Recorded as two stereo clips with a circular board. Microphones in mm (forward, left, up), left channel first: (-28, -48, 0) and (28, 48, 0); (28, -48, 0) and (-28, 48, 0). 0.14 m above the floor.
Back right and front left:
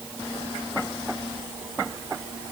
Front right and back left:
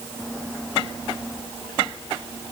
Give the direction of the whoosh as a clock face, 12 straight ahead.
I don't hear a whoosh.